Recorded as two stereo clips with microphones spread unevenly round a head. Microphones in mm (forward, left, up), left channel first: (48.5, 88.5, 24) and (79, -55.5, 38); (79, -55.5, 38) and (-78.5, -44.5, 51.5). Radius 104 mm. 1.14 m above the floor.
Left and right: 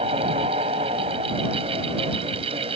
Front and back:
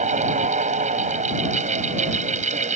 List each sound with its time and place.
0.0 s a fan: 140° right